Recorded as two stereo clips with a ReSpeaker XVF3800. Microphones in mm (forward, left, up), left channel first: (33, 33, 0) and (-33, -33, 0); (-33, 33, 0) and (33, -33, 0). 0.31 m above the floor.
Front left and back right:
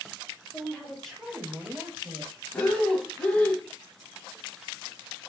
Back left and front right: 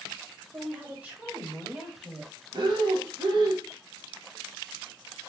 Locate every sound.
0.5 s a woman speaking: 5° left, 1.3 m; by 2.3 s 100° right, 1.6 m
2.5 s breathing: 30° right, 1.1 m